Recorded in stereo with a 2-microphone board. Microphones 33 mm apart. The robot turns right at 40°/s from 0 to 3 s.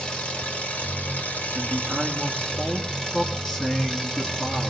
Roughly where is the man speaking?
Ahead.